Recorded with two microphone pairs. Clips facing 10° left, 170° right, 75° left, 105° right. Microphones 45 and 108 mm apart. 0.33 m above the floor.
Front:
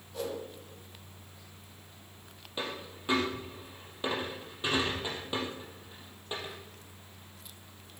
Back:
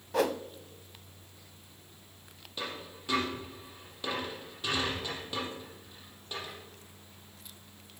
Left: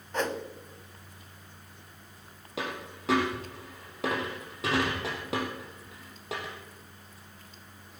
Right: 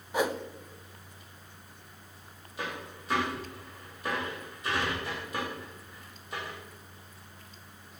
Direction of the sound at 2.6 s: 80° left.